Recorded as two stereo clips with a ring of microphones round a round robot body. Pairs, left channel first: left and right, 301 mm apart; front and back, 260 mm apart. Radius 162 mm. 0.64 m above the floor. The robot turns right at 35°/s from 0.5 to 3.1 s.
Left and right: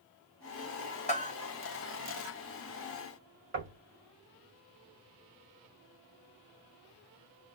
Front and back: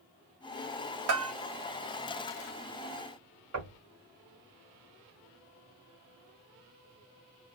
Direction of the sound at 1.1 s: 155° left.